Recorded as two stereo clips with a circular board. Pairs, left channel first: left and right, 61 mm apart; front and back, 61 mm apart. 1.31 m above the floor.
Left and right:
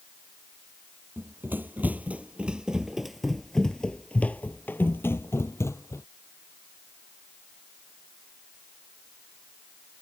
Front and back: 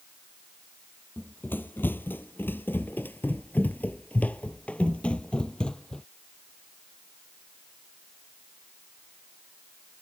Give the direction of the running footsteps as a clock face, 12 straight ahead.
2 o'clock.